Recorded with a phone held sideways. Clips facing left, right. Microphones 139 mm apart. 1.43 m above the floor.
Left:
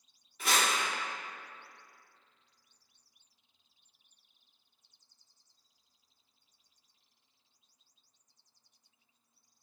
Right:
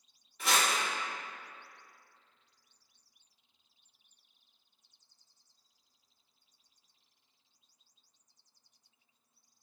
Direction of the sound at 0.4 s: Centre (ahead or behind).